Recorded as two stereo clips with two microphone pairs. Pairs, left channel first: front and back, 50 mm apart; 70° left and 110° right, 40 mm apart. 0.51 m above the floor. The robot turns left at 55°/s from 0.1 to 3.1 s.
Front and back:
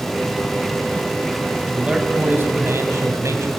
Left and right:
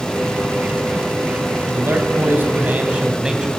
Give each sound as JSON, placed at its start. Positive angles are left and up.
{"t": 1.7, "sound": "a man speaking", "azimuth_deg": -100, "distance_m": 3.0}